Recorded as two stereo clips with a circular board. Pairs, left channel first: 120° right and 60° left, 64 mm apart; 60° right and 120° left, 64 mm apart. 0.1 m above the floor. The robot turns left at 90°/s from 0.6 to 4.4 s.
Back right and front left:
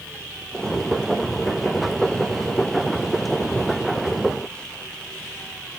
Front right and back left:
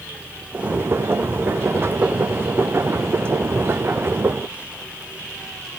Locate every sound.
Only background noise.